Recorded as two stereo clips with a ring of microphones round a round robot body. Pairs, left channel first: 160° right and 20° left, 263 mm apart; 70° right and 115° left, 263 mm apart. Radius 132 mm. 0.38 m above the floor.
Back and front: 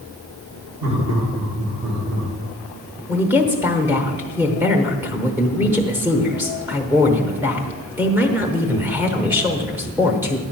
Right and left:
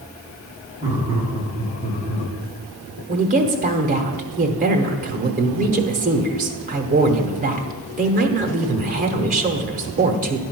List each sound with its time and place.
0.8 s laughter: 40° left, 4 m; by 2.3 s 45° left, 4.5 m
3.1 s a woman speaking: 100° left, 0.9 m